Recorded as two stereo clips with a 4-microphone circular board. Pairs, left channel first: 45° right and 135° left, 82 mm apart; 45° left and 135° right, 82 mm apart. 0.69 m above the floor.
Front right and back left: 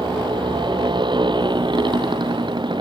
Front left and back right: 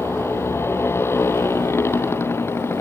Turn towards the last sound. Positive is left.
turn(degrees=105)